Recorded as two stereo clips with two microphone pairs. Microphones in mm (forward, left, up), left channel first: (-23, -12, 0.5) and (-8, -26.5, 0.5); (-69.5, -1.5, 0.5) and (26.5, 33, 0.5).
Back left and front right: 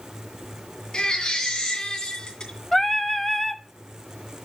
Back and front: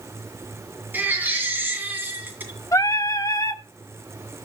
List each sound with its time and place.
0.9 s a baby crying: 90° left, 2.5 m
2.7 s singing: 155° right, 0.7 m